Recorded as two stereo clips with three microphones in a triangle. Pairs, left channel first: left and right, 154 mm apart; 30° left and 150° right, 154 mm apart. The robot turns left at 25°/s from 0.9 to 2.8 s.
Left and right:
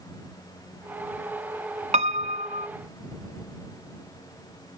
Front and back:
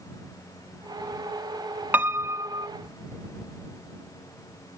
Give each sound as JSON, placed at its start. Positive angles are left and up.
{"t": 1.9, "sound": "a piano", "azimuth_deg": -75}